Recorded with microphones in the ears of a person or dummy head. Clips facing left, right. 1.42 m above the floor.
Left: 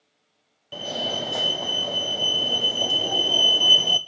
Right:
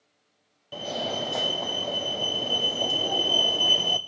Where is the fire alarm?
5° left (ahead or behind), 0.9 m.